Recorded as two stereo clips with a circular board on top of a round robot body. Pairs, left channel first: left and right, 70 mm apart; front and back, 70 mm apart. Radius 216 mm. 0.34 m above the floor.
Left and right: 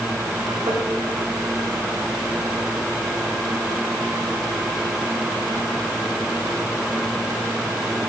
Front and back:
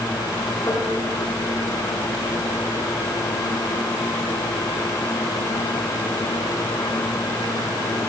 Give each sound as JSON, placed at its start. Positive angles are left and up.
{"t": 0.7, "sound": "tapping", "azimuth_deg": -50, "distance_m": 8.5}